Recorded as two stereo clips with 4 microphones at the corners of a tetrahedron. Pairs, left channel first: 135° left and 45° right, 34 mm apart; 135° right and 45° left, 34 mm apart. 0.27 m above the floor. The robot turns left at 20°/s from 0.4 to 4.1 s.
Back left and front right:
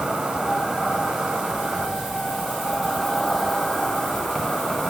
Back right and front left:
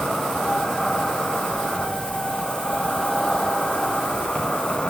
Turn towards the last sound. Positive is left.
turn(degrees=-155)